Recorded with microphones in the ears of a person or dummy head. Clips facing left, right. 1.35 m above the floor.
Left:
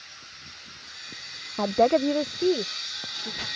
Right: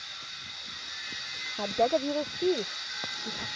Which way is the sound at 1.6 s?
75° left (ahead or behind).